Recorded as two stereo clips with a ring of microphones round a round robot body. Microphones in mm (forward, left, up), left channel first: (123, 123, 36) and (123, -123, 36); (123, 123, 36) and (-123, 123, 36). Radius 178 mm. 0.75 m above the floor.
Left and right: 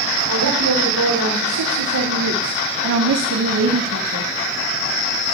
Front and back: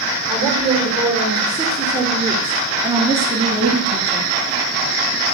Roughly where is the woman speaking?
Right.